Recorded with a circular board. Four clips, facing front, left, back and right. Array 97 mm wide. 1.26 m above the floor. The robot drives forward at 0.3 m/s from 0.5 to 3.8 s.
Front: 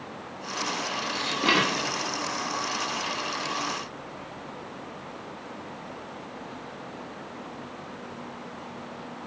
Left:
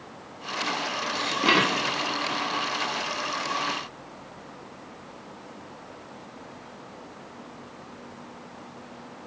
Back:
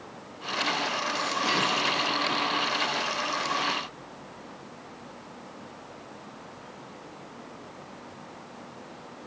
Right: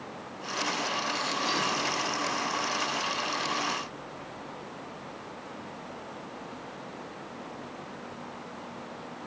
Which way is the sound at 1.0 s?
60° left.